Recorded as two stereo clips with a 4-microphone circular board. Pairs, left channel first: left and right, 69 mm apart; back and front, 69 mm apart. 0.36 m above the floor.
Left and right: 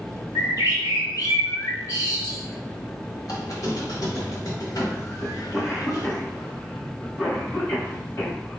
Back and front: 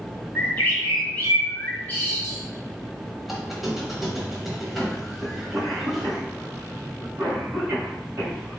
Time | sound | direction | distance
0.3 | a bird | 115° left | 1.5 m
3.2 | a squeak | 90° left | 1.2 m
5.2 | a cough | 50° left | 2 m